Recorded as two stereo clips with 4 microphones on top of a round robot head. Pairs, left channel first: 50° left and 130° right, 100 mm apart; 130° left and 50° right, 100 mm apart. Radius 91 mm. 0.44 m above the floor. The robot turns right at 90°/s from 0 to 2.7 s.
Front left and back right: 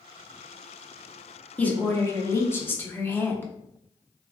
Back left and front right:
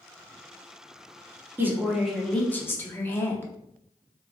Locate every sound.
1.6 s a woman speaking: 10° right, 0.9 m; by 3.5 s 90° left, 0.9 m